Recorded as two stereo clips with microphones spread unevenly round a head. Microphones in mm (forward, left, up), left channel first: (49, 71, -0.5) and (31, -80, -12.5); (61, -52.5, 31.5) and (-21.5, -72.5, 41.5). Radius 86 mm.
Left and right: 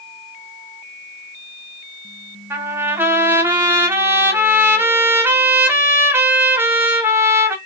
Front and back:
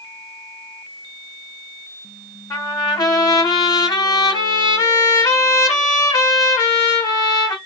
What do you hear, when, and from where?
2.5 s a trumpet: 25° right, 0.7 m